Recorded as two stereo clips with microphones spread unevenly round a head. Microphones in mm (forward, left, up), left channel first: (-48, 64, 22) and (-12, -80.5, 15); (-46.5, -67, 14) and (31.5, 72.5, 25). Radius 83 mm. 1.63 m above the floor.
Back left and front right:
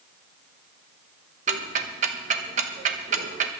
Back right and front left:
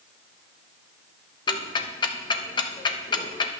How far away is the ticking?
About 0.9 m.